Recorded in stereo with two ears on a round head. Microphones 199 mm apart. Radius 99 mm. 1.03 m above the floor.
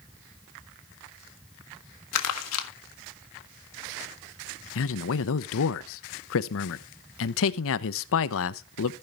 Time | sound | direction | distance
2.1 | crumpling | 75° left (ahead or behind) | 1.5 m
4.8 | a man speaking | 60° left (ahead or behind) | 0.7 m